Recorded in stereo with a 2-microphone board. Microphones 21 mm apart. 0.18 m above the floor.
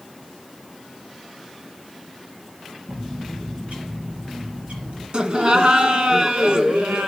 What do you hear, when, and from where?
2.9 s a bird: 70° right (ahead or behind), 5.5 m
5.1 s laughter: 45° right (ahead or behind), 1.5 m